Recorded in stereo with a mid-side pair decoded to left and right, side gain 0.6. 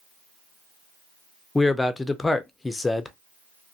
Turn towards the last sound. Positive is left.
turn(degrees=15)